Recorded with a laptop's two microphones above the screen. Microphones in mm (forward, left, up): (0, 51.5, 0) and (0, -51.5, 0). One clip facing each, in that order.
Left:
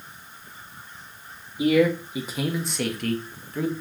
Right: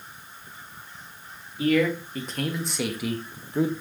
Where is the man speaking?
15° left (ahead or behind), 2.5 m; by 3.7 s 25° right (ahead or behind), 1.3 m.